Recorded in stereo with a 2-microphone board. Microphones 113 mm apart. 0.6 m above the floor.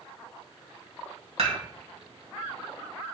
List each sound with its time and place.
1.4 s dishes clattering: 65° right (ahead or behind), 2.5 m